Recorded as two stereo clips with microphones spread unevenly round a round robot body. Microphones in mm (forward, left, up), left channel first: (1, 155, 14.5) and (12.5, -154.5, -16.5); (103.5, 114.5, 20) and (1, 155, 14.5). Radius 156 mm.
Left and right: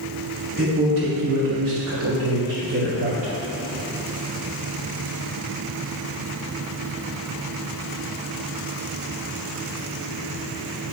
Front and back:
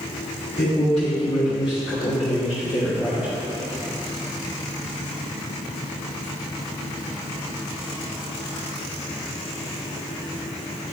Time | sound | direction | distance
0.6 | a man speaking | 50° right | 1.9 m